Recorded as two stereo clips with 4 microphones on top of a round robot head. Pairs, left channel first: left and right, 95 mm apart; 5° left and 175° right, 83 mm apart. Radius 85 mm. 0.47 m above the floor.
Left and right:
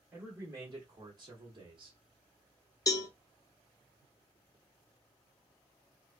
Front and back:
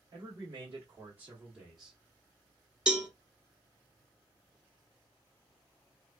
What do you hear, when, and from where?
0.1 s a man speaking: 155° right, 1.3 m; by 2.0 s 85° right, 1.2 m
2.9 s a cowbell: 110° left, 0.7 m